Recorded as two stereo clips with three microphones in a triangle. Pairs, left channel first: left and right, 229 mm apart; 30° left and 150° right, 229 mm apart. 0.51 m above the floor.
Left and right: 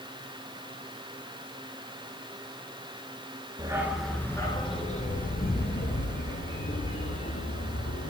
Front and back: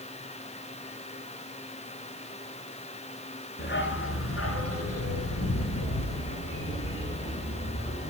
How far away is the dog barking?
About 2.5 m.